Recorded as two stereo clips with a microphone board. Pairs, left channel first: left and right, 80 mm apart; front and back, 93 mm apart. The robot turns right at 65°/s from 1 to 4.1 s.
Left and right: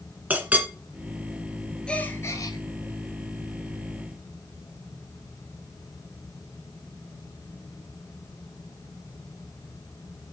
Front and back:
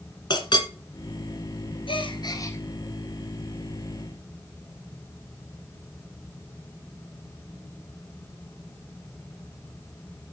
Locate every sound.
0.3 s a clink: 25° right, 1.7 m
1.9 s a gasp: 10° left, 1.4 m; by 2.6 s 55° left, 1.4 m